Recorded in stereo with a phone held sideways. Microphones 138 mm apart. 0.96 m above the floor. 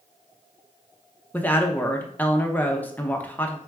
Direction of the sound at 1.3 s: 10° left (ahead or behind).